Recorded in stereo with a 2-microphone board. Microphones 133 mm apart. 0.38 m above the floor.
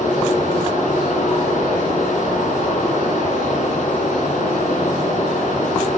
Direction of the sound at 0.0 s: 75° left (ahead or behind).